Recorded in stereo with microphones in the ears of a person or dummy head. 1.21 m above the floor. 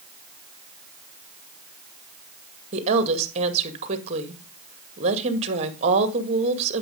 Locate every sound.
2.7 s a woman speaking: 40° right (ahead or behind), 2 m